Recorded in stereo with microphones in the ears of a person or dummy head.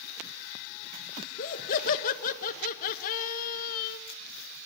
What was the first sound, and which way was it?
Laughter, 50° left (ahead or behind).